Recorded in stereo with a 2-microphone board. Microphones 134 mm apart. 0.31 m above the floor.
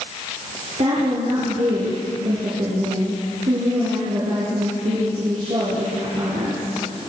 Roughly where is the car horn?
No car horn in this recording.